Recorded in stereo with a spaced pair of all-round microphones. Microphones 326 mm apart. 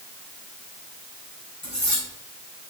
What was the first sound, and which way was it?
Cutlery clinking, 55° left (ahead or behind).